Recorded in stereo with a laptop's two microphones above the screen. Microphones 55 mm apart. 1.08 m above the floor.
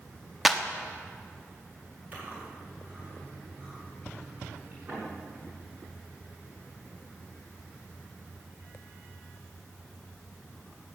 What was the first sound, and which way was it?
A clap, centre (ahead or behind).